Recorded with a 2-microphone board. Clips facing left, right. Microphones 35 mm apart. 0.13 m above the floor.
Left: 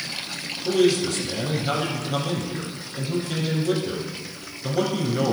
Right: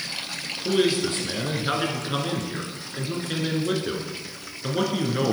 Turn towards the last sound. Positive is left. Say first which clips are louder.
# left 2 dB
turn(degrees=-35)  # may be behind; listen again after turning